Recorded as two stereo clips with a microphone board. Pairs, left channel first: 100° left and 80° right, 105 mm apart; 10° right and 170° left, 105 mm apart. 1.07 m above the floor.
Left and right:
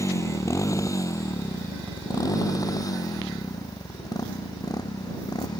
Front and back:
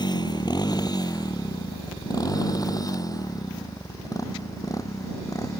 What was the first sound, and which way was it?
A motorcycle, 40° left.